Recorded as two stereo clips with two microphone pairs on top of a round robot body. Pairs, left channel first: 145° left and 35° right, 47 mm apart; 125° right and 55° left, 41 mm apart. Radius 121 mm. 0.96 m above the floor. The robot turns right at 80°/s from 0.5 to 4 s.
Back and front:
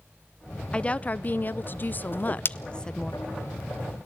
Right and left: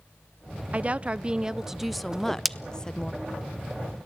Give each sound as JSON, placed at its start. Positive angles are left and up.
{"t": 0.7, "sound": "a woman speaking", "azimuth_deg": 65, "distance_m": 0.7}
{"t": 2.1, "sound": "a whoosh", "azimuth_deg": 130, "distance_m": 0.9}